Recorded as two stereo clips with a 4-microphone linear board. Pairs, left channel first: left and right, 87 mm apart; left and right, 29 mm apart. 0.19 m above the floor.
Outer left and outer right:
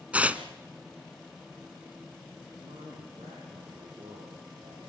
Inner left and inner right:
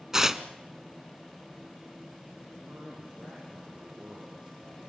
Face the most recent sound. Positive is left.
turn(degrees=-75)  # may be behind; listen again after turning